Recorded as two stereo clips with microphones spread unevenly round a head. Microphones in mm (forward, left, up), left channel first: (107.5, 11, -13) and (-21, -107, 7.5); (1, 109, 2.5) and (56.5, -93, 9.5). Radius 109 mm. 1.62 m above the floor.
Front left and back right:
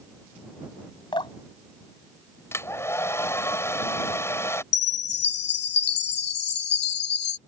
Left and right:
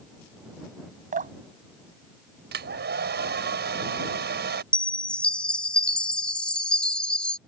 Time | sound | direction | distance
1.1 | dripping | 25° right | ?
2.5 | a hair dryer | 35° right | ?
4.7 | a chime | 20° left | ?